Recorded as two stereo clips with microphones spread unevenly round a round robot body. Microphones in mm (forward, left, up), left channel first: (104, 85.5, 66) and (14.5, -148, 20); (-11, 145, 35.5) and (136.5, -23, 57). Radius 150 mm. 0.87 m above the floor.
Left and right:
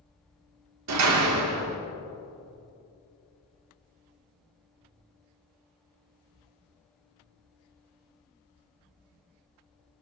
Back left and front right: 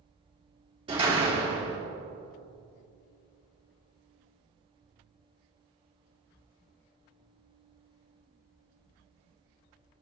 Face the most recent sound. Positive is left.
turn(degrees=-120)